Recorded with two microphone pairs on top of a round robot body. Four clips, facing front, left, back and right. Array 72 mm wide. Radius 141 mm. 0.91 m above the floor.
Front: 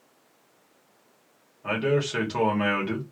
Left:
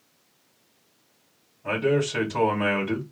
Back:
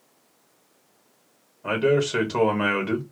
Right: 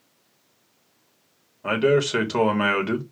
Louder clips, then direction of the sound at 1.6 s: Right 4 dB, back 4 dB; 105° right.